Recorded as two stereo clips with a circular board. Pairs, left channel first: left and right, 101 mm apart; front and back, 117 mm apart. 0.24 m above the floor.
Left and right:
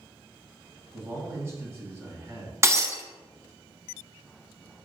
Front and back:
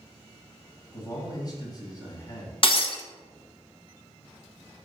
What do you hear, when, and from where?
0.9 s a man speaking: 40° right, 2.0 m
2.6 s breaking glass: 30° right, 0.8 m